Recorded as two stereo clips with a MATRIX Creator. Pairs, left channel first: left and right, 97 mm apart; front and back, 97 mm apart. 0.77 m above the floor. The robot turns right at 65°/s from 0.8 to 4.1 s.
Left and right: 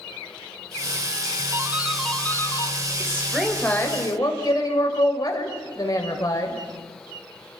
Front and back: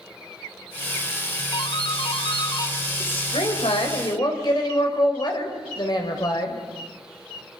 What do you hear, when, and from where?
1.5 s a doorbell: 30° right, 1.9 m; by 2.8 s 50° left, 1.9 m
3.0 s a woman speaking: 30° right, 3.5 m; by 6.5 s 40° left, 3.5 m